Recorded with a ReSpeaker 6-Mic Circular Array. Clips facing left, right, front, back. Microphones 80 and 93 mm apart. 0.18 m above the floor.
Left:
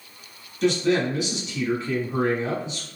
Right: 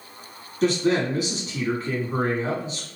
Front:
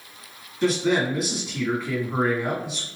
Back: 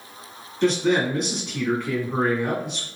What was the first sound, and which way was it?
A man speaking, 85° right.